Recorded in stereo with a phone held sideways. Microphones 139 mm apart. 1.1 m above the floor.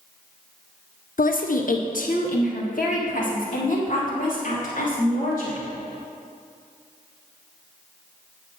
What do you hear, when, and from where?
1.2 s a woman speaking: 70° left (ahead or behind), 0.7 m; by 5.7 s 65° left (ahead or behind), 3 m